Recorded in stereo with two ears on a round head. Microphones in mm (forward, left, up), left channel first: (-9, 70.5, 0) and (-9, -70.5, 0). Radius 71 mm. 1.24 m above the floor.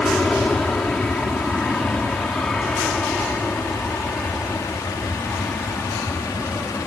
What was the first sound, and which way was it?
An aircraft, 5° left (ahead or behind).